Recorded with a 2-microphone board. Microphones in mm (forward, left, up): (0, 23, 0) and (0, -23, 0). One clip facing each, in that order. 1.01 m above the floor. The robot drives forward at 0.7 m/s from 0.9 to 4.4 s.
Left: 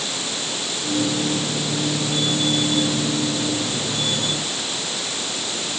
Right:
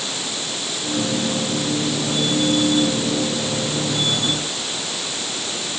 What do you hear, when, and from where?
Only background noise.